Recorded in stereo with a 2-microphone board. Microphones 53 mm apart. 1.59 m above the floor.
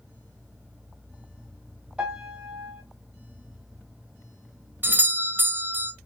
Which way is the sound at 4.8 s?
35° right (ahead or behind).